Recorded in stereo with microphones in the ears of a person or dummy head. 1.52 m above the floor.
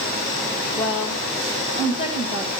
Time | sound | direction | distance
0.8 | a woman speaking | 35° left (ahead or behind) | 2 m